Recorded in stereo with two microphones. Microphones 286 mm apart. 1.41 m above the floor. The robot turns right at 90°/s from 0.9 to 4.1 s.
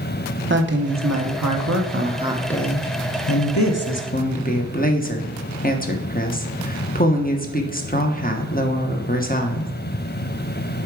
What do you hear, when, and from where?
0.5 s a woman speaking: 140° right, 1.0 m; by 9.7 s 150° left, 1.0 m